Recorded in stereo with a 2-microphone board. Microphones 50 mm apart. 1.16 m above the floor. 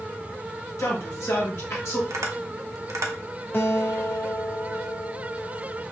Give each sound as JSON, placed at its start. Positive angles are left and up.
{"t": 0.8, "sound": "a man speaking", "side_deg": 60, "distance_m": 1.4}
{"t": 2.1, "sound": "tapping", "side_deg": -80, "distance_m": 0.7}
{"t": 3.5, "sound": "a guitar", "side_deg": 45, "distance_m": 0.8}